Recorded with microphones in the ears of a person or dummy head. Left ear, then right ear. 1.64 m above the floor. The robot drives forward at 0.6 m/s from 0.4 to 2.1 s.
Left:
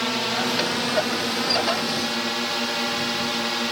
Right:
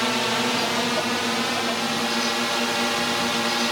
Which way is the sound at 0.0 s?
10° right (ahead or behind).